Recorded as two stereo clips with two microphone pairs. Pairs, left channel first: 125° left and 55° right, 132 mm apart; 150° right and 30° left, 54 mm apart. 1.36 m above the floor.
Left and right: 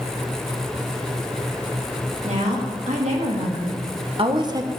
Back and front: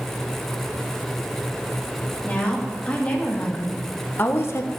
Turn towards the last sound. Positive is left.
turn(degrees=-125)